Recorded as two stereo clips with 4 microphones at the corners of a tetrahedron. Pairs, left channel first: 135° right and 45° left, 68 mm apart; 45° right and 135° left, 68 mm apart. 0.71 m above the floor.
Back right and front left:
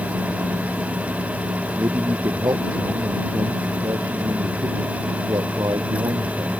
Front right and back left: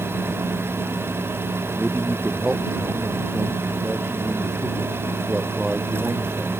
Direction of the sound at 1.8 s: 60° left.